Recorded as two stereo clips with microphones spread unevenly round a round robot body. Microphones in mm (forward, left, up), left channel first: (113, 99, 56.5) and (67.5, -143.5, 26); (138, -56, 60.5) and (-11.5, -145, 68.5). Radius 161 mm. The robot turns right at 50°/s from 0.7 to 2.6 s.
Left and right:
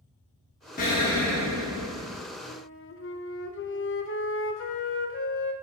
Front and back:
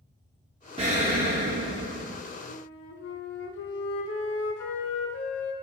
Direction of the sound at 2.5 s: 30° left.